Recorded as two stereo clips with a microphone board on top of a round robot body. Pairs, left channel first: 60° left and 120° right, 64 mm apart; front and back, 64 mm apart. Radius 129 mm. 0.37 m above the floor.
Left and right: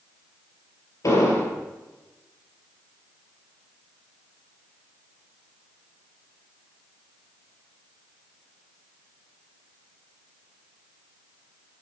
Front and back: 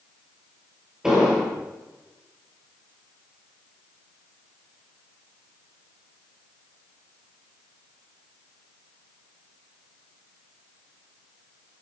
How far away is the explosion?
About 3 m.